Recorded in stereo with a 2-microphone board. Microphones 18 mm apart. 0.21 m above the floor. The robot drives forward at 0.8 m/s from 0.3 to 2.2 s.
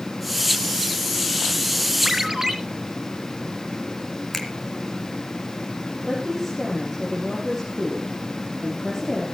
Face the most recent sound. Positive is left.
turn(degrees=-15)  # may be behind; listen again after turning